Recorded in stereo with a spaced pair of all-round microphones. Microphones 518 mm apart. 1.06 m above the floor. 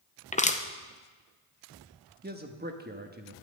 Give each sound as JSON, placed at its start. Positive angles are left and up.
{"t": 0.3, "sound": "crushing", "side_deg": 15, "distance_m": 0.7}
{"t": 2.2, "sound": "a man speaking", "side_deg": -15, "distance_m": 1.1}